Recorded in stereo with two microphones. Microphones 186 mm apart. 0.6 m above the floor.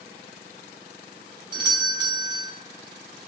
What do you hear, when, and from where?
1.5 s a doorbell: 25° right (ahead or behind), 1.1 m